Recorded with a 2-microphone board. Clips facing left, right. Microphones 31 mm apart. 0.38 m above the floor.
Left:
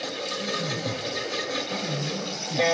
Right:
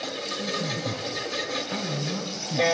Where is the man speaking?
30° right (ahead or behind), 4 m.